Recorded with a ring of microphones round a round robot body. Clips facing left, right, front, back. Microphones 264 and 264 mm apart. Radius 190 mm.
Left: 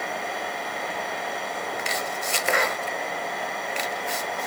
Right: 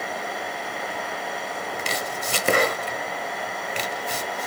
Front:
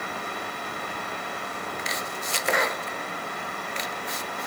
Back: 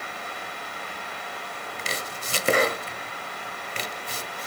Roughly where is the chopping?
Behind right.